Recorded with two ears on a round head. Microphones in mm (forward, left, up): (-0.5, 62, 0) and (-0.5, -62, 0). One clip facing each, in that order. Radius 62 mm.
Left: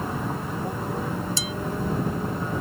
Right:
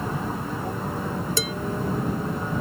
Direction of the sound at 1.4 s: 45° right (ahead or behind).